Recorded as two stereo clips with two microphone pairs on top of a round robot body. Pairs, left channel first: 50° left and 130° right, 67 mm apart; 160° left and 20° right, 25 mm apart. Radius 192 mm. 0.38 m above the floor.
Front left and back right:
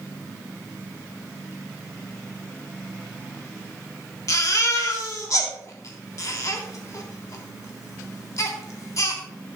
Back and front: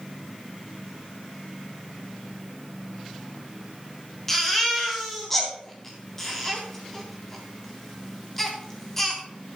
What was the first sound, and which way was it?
A baby crying, 80° left.